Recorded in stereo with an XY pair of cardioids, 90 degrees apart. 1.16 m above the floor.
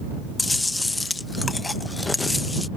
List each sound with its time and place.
0.4 s chewing: 15° left